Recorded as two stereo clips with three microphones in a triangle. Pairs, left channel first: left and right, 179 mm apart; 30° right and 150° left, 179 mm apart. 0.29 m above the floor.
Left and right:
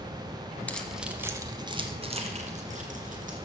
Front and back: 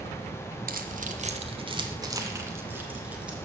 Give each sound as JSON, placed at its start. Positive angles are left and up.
{"t": 0.7, "sound": "keys jangling", "azimuth_deg": 170, "distance_m": 1.2}